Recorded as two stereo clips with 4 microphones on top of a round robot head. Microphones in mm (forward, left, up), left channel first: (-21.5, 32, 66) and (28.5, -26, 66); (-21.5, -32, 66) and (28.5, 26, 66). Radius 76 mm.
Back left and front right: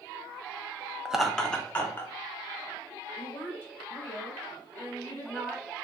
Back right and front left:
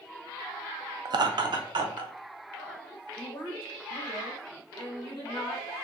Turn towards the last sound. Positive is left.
turn(degrees=-160)